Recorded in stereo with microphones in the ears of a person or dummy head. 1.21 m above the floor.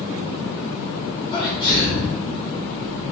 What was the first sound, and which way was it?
A sneeze, 25° left (ahead or behind).